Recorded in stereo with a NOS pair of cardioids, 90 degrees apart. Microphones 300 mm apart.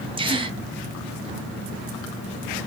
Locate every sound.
0.2 s a gasp: 20° right, 0.7 m